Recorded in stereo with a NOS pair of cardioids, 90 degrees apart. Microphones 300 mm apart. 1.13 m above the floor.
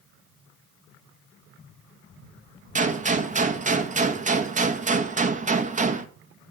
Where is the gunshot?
25° right, 1.3 m.